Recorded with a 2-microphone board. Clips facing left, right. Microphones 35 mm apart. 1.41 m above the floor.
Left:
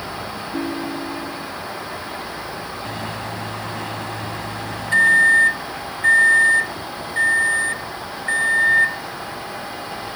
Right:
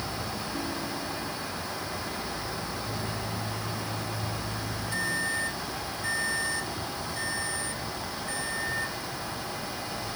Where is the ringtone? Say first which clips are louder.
Left 11 dB; 70° left (ahead or behind).